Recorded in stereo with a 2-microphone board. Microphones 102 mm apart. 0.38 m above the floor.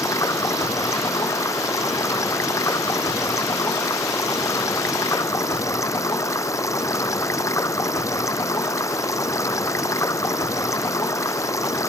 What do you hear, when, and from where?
0.0 s running water: 30° left (ahead or behind)